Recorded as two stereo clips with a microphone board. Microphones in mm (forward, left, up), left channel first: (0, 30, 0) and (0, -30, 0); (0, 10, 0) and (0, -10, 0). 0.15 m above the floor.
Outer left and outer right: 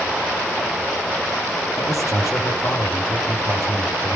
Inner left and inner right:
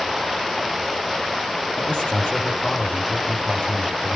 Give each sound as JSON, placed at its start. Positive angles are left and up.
{"t": 1.8, "sound": "a man speaking", "side_deg": 65, "distance_m": 5.0}